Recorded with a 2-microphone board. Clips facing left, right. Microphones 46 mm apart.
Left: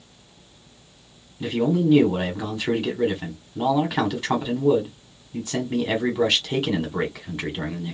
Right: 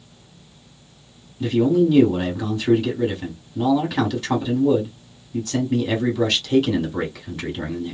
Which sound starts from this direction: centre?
A man speaking, at 1.4 s.